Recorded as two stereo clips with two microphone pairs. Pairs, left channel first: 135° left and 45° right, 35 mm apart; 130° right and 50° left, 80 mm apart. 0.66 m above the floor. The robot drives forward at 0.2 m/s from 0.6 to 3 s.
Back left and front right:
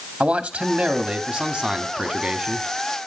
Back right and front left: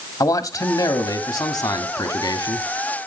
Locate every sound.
0.2 s a man speaking: 110° right, 1.5 m; by 2.7 s 130° right, 1.7 m